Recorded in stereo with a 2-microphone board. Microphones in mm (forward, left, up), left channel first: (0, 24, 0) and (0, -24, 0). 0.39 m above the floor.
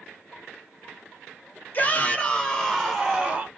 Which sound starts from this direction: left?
A shout, at 1.7 s.